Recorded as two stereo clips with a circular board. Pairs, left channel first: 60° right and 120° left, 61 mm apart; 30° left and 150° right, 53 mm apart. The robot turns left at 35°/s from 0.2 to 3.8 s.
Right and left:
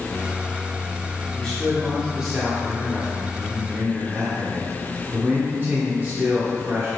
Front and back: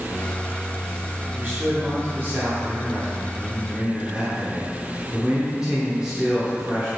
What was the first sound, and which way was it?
A man speaking, 135° right.